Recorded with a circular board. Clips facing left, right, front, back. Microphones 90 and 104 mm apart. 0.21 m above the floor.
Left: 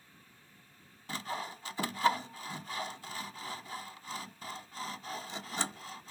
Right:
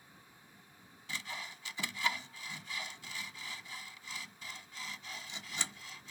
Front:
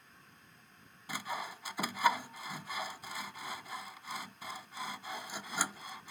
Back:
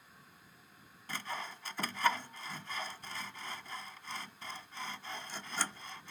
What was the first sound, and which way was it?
Sawing, 75° left.